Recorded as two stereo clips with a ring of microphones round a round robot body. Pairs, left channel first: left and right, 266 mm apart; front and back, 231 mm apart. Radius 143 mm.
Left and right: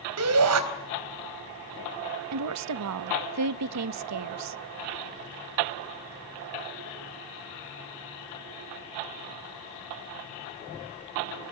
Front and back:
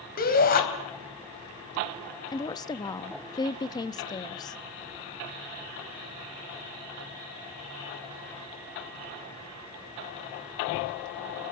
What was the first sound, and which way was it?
A shout, 60° right.